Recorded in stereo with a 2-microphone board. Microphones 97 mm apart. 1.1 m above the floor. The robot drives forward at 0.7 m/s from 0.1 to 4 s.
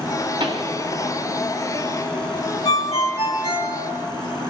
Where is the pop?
60° right (ahead or behind), 1.5 m; by 0.8 s 55° right (ahead or behind), 1.6 m.